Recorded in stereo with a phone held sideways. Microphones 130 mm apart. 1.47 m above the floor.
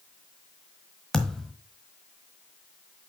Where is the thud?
5° left (ahead or behind), 1.3 m.